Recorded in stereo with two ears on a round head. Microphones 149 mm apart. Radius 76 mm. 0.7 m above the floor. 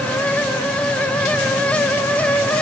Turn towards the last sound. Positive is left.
No sound to turn to.